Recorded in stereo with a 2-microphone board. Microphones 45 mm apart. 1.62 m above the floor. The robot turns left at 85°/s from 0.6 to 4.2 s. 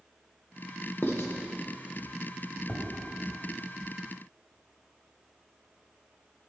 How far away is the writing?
About 1.2 m.